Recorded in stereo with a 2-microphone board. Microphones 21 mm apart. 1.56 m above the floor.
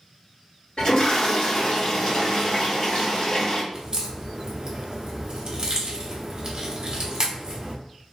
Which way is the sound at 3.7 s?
35° right (ahead or behind).